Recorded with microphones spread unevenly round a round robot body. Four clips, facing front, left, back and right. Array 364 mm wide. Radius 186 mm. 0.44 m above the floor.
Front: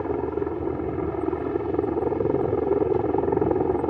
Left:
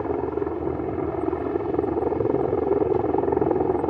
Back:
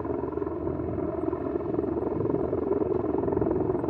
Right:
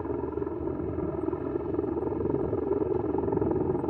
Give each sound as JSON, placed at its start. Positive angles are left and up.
{"t": 0.0, "sound": "a helicopter", "azimuth_deg": 40}